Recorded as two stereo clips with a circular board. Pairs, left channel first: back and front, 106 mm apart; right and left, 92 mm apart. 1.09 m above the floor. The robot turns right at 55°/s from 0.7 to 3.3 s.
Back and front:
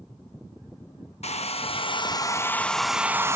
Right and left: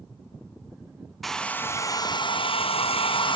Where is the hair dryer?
Straight behind, 0.7 m; by 3.4 s 65° right, 0.7 m.